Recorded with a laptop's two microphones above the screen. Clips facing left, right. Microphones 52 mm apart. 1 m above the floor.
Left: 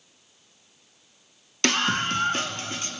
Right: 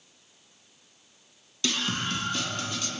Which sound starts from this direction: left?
A scream, at 1.6 s.